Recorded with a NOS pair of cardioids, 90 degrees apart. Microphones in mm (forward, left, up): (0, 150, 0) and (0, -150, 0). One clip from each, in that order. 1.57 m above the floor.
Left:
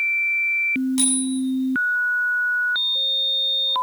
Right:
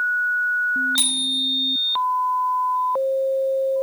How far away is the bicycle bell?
About 8.5 m.